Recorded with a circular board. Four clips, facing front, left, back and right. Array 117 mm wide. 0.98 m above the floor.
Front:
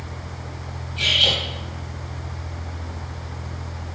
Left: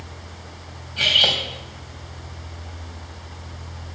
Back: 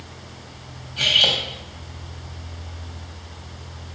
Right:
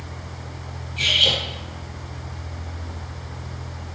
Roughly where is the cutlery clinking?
Behind left.